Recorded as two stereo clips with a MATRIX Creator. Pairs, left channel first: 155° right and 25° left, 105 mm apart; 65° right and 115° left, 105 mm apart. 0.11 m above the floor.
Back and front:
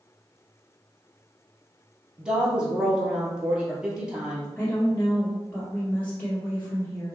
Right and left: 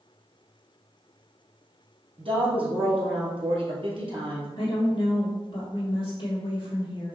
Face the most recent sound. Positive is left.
turn(degrees=-85)